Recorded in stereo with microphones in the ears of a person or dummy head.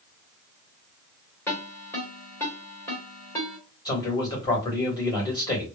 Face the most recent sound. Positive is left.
turn(degrees=20)  # may be behind; listen again after turning